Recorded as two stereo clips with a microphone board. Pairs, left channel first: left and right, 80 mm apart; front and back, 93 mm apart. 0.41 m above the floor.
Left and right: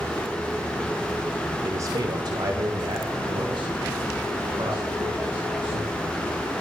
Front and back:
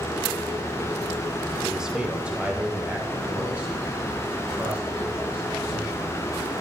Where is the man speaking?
95° right, 0.9 m; by 5.9 s 110° right, 5 m.